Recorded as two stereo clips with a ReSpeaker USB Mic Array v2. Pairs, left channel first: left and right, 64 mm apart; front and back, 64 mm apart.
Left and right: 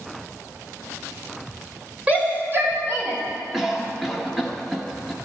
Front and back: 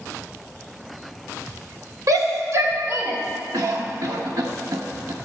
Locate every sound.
2.1 s a shout: 155° right, 3.5 m; by 3.2 s 130° right, 4 m
3.5 s a cough: 175° right, 1.2 m